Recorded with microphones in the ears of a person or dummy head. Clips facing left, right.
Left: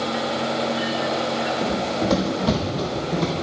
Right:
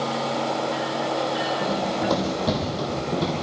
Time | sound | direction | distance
1.6 | running footsteps | 15° left (ahead or behind) | 4.5 m